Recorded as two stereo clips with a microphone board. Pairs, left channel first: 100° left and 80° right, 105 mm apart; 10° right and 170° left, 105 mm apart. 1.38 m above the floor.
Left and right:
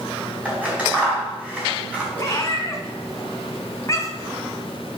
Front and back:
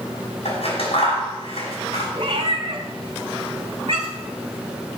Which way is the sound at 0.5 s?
Straight ahead.